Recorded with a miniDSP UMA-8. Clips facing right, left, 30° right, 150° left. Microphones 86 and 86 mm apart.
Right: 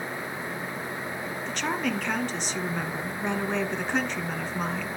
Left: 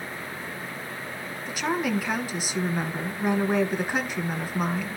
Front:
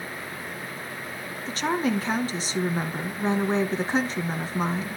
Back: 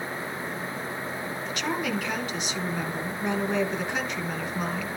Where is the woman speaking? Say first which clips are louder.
Left 3 dB, front 5 dB; 10° left, 1.7 m.